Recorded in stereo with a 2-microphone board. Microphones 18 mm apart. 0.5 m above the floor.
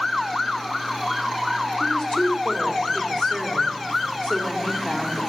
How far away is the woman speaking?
About 1.8 m.